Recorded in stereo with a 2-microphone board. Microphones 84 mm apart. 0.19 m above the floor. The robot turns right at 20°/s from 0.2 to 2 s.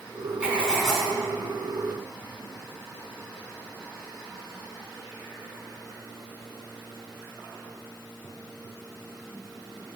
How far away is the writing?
About 1.5 m.